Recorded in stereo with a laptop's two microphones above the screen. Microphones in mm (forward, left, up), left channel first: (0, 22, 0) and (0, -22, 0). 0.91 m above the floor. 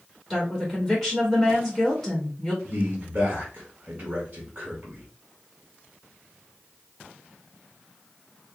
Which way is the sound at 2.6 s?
30° right (ahead or behind).